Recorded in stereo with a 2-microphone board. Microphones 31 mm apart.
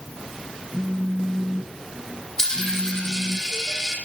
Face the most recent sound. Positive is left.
turn(degrees=10)  # may be behind; listen again after turning